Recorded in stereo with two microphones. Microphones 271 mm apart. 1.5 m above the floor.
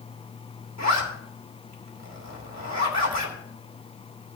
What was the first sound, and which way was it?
A zipper, 80° right.